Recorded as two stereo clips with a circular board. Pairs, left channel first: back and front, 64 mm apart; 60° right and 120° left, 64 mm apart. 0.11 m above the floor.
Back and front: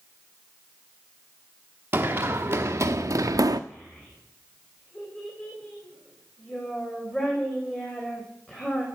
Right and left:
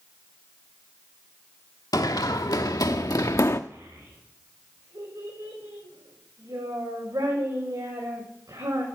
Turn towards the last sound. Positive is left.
turn(degrees=115)